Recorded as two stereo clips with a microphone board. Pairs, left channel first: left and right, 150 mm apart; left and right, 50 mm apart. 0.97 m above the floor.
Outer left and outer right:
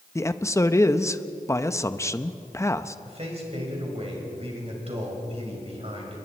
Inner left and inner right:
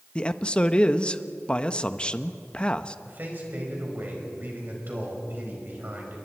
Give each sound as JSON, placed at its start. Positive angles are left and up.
{"t": 0.1, "sound": "a man speaking", "side_deg": 20, "distance_m": 0.7}
{"t": 3.0, "sound": "a man speaking", "side_deg": -45, "distance_m": 5.0}